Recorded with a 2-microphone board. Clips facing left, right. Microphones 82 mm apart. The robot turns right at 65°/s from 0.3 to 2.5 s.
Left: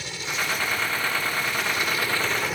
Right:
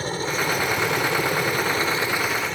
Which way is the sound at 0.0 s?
135° right.